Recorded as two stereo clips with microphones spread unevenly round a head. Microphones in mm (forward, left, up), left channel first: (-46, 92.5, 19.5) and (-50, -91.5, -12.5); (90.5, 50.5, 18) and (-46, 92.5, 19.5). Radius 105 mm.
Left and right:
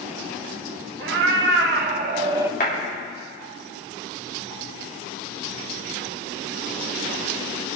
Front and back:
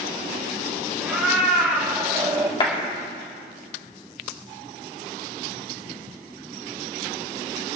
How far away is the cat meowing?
About 1.5 m.